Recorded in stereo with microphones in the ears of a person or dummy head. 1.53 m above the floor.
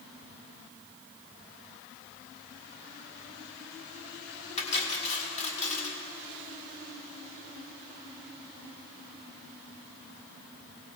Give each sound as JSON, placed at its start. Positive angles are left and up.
{"t": 4.6, "sound": "cutlery clinking", "side_deg": 35, "distance_m": 1.5}